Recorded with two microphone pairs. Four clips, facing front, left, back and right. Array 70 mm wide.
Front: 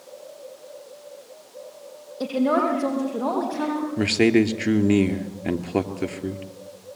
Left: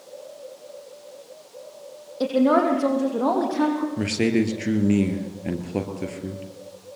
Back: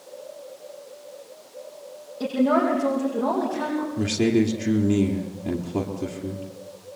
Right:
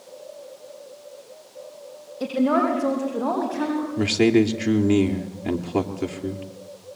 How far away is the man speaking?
About 2.5 m.